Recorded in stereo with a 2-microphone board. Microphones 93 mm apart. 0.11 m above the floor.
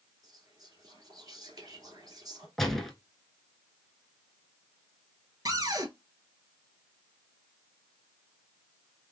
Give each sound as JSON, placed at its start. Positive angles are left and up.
{"t": 0.2, "sound": "whispering", "side_deg": -45, "distance_m": 2.0}
{"t": 2.6, "sound": "a gunshot", "side_deg": 5, "distance_m": 1.0}
{"t": 5.5, "sound": "a cupboard door", "side_deg": -45, "distance_m": 0.9}